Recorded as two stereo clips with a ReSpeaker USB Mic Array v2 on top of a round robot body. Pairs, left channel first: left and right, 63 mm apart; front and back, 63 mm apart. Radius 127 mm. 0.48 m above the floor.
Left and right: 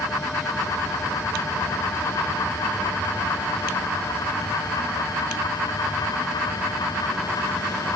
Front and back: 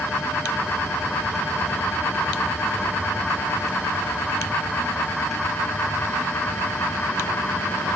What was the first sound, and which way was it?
Only background noise.